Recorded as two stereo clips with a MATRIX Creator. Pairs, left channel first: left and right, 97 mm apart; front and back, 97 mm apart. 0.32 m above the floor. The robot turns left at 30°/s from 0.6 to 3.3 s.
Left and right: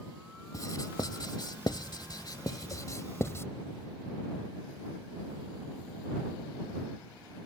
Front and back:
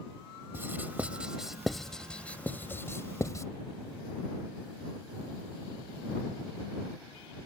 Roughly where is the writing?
Behind left.